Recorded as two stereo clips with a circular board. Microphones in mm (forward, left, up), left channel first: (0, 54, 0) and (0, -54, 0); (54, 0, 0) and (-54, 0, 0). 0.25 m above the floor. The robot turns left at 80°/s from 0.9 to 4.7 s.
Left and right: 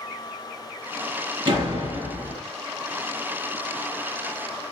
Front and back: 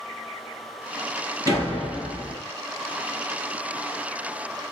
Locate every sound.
1.4 s a door slam: 55° right, 2.5 m; by 2.4 s 130° right, 2.5 m